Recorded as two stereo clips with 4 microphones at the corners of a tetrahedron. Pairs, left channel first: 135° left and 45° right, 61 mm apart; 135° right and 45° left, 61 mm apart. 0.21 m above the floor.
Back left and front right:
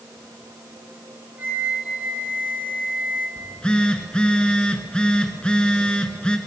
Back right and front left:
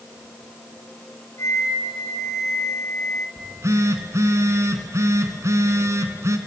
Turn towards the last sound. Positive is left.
turn(degrees=65)